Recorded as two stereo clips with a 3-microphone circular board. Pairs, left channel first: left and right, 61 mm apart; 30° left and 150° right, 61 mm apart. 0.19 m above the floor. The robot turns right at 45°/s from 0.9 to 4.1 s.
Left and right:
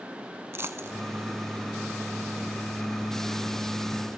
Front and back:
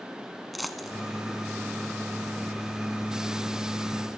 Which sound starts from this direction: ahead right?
A dropped coin, at 0.5 s.